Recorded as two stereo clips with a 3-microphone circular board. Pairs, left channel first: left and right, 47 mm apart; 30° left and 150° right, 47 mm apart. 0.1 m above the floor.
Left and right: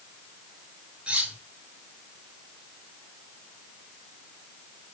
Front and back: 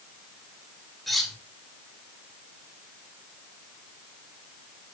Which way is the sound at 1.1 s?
55° right.